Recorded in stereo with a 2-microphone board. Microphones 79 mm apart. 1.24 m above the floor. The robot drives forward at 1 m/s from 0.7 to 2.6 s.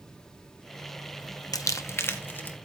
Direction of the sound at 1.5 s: 45° left (ahead or behind).